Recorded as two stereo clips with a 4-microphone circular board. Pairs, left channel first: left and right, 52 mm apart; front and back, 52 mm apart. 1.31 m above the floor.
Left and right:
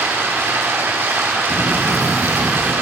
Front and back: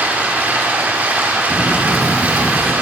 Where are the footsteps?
135° left, 1.3 m; by 2.7 s 55° right, 1.3 m.